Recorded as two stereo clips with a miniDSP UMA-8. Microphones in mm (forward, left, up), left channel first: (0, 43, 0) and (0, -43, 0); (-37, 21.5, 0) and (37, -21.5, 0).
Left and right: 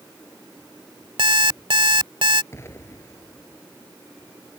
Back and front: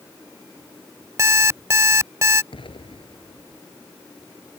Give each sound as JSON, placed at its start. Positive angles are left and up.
{"t": 1.2, "sound": "an alarm clock", "azimuth_deg": -80}
{"t": 2.5, "sound": "an explosion", "azimuth_deg": 150}